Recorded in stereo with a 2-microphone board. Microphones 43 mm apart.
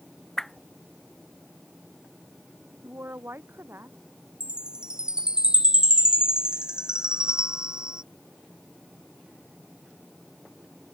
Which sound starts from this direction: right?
A woman speaking, at 2.8 s.